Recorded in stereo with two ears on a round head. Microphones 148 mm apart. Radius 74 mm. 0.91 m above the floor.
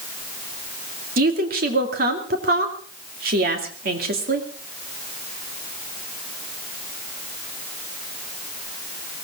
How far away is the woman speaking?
About 2.5 m.